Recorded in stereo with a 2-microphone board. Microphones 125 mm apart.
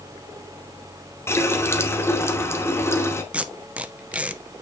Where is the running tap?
20° left (ahead or behind), 1.2 m.